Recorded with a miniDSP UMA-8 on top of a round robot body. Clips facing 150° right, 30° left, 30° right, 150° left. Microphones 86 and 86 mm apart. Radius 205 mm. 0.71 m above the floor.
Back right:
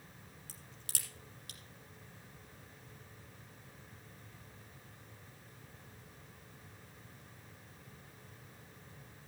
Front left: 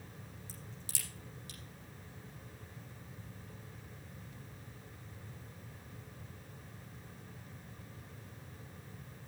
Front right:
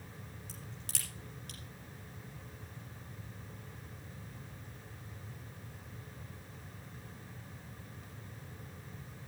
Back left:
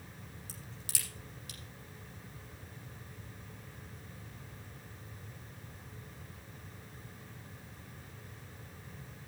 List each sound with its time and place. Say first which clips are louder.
0.5 s a crack: front left 3 dB, even; 125° right, 6.5 m